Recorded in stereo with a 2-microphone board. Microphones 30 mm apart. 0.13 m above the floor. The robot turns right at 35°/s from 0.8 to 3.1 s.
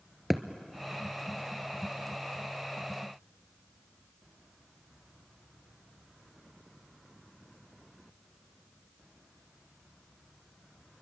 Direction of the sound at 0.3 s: 5° right (ahead or behind).